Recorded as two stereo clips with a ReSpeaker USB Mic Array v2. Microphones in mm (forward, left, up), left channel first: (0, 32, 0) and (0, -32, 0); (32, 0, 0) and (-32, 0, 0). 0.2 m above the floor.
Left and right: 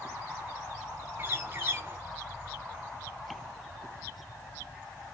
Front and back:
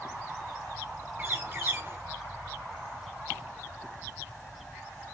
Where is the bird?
135° right, 0.9 m.